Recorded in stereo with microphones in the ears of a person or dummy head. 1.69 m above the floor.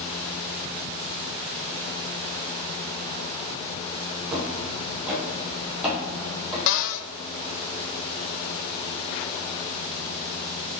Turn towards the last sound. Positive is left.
turn(degrees=65)  # may be behind; listen again after turning